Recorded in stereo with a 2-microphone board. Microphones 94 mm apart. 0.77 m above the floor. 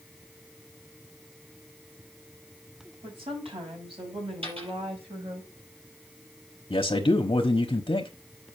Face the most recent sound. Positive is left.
turn(degrees=60)  # may be behind; listen again after turning